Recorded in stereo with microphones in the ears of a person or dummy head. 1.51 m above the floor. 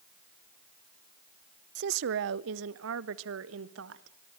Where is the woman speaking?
60° right (ahead or behind), 0.6 m; by 4.2 s 80° right, 1.9 m.